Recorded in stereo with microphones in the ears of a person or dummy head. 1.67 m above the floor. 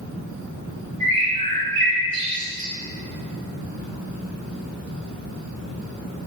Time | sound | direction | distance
1.0 | a bird | 25° right (ahead or behind) | 0.9 m